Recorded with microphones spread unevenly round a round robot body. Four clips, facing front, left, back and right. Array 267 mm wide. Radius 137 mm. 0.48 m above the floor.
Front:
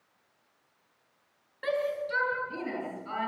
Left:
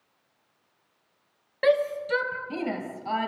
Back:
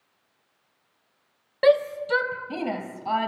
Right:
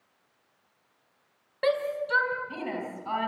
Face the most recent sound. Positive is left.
turn(degrees=150)